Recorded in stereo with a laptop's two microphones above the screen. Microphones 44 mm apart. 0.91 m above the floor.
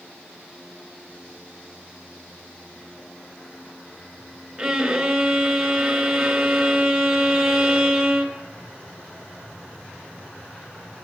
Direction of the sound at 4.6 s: 10° right (ahead or behind).